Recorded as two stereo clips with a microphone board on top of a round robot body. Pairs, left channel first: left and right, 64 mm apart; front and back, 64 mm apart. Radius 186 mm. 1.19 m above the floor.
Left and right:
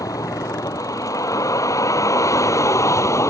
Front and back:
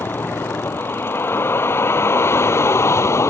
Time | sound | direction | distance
0.0 | a vehicle | 60° left | ?